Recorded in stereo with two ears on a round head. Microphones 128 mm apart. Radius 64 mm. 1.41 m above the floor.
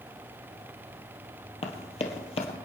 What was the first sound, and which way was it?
Running footsteps, 45° left (ahead or behind).